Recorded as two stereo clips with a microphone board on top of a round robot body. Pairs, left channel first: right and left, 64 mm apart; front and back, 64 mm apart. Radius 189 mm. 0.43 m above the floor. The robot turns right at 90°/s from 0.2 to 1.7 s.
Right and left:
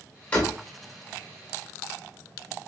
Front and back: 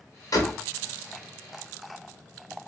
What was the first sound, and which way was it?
A door slam, 25° right.